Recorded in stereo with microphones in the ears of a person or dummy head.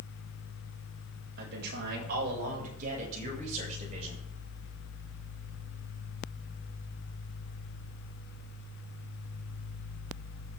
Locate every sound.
1.4 s a man speaking: 65° right (ahead or behind), 8 m; by 4.2 s 40° right (ahead or behind), 9.5 m